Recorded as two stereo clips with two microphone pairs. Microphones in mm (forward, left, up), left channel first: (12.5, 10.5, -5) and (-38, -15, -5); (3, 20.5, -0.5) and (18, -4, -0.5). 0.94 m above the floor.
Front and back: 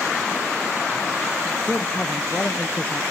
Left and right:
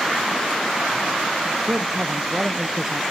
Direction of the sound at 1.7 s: 10° right.